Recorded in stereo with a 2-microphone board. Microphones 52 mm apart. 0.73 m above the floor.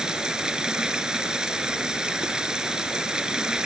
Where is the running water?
15° right (ahead or behind).